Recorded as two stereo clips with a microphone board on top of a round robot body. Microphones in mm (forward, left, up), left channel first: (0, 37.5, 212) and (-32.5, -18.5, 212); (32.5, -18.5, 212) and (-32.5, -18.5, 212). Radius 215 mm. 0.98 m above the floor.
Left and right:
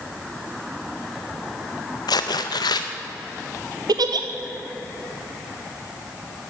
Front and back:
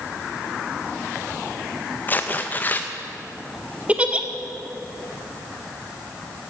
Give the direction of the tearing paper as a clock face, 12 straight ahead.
10 o'clock.